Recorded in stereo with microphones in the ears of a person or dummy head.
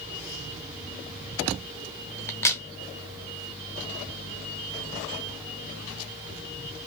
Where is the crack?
10° left (ahead or behind), 0.7 m.